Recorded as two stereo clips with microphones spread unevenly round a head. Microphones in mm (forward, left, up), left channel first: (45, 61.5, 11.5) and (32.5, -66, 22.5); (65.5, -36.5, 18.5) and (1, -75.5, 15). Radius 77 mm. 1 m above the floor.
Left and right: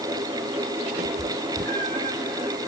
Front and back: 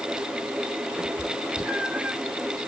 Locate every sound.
1.0 s a cat meowing: 75° right, 2.5 m